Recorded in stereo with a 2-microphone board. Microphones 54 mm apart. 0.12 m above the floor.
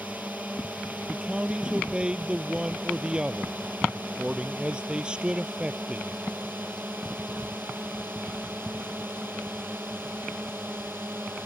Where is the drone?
30° right (ahead or behind); by 11.5 s 40° right (ahead or behind).